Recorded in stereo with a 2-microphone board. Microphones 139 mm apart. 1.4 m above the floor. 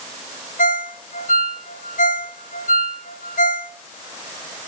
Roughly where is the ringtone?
Left.